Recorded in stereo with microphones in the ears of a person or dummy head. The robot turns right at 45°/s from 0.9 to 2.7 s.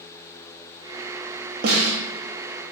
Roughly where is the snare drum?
Right.